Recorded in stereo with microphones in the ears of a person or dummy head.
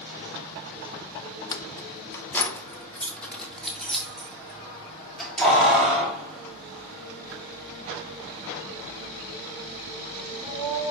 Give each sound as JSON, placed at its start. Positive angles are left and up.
{"t": 1.5, "sound": "keys jangling", "side_deg": 20, "distance_m": 0.8}